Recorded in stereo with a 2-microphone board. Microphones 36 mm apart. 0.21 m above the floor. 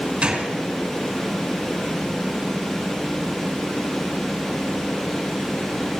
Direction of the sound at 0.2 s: 30° right (ahead or behind).